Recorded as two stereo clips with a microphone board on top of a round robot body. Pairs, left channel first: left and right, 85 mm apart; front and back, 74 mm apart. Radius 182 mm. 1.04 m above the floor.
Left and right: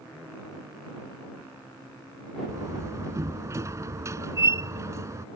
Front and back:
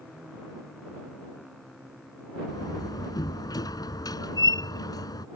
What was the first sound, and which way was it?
A door slam, 35° right.